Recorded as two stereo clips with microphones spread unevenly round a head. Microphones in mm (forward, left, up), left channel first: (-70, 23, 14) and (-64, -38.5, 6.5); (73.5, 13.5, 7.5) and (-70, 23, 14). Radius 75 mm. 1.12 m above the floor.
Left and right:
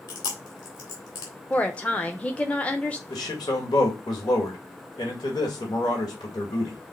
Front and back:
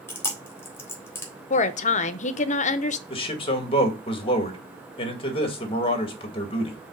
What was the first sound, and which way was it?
Chewing, 70° left.